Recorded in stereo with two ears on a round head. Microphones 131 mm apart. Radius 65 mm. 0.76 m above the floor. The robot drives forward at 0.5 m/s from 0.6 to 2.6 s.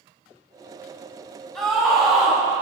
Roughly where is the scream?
Centre.